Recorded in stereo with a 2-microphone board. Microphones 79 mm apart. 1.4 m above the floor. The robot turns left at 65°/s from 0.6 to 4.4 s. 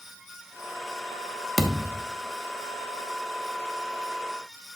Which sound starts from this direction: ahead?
A thud, at 1.6 s.